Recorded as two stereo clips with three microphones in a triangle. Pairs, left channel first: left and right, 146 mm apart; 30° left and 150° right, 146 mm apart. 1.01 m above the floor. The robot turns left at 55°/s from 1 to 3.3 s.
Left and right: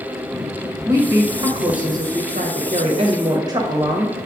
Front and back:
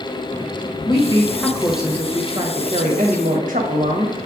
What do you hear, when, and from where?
0.8 s a woman speaking: 25° right, 1.2 m; by 4.2 s 150° right, 1.2 m